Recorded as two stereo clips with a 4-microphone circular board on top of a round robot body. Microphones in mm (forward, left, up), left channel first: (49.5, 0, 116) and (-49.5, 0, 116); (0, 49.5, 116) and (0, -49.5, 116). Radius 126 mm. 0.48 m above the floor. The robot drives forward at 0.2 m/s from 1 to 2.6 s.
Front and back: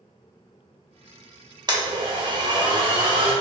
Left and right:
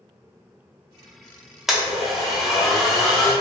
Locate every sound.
1.7 s a blender: 175° right, 1.3 m